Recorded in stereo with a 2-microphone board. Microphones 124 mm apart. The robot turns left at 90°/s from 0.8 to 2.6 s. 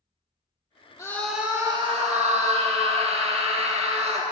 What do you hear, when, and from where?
1.0 s a scream: 30° left, 1.8 m; by 4.2 s 115° right, 1.8 m